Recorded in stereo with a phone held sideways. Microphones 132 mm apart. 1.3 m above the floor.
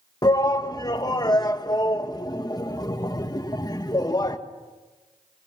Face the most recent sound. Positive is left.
turn(degrees=30)  # may be behind; listen again after turning